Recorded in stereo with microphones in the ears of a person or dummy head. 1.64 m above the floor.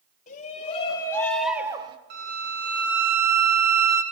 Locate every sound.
0.3 s a shout: 40° left (ahead or behind), 1.4 m; by 2.0 s 30° right (ahead or behind), 0.9 m
2.1 s a violin: 55° right (ahead or behind), 1.0 m